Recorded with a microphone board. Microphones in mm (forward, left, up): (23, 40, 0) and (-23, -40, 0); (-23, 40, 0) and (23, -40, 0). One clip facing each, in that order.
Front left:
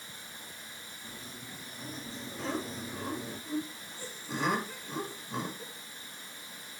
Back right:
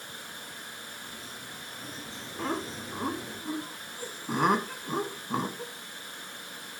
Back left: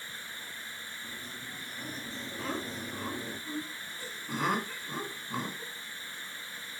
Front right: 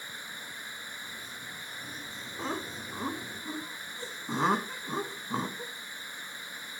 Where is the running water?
130° right, 1.0 m.